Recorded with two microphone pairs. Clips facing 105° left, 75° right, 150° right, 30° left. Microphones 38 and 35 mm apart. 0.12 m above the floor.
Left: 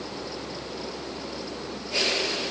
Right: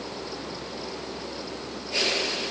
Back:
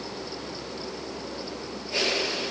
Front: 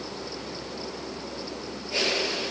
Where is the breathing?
No breathing in this recording.